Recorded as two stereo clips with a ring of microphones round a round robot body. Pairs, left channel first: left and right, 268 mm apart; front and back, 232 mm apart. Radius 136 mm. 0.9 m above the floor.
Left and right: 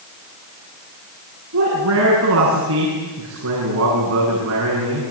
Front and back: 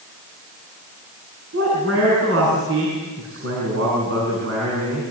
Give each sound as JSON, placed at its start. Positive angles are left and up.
{"t": 1.5, "sound": "a man speaking", "azimuth_deg": -130, "distance_m": 8.5}